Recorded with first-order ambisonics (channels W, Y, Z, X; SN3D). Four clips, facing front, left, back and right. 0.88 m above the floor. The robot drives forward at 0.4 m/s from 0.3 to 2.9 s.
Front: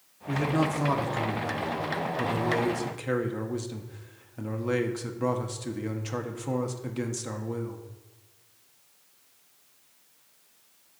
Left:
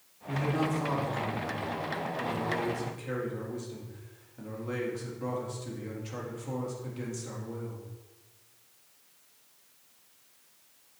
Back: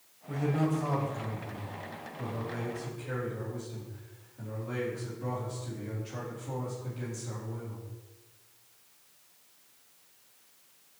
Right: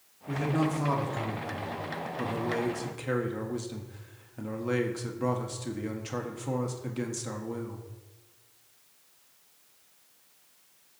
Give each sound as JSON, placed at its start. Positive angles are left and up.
{"t": 0.3, "sound": "a man speaking", "azimuth_deg": -20, "distance_m": 2.5}